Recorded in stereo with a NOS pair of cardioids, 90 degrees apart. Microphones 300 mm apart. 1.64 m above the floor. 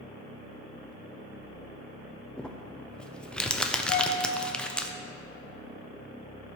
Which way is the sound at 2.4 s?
5° left.